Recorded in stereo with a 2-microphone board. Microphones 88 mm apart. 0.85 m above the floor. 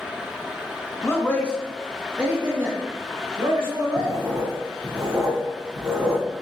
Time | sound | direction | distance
1.0 | a man speaking | 35° left (ahead or behind) | 0.9 m
4.0 | writing | 40° right (ahead or behind) | 2 m